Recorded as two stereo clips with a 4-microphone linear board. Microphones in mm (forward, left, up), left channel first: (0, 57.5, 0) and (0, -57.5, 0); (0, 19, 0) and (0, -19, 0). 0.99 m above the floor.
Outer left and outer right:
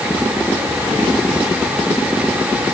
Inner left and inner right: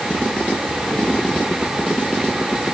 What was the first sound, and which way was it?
Only background noise.